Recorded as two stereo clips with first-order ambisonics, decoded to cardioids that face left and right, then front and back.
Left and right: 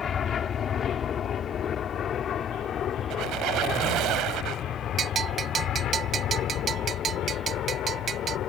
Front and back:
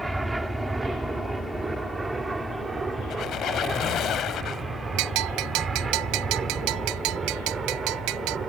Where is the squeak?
50° right.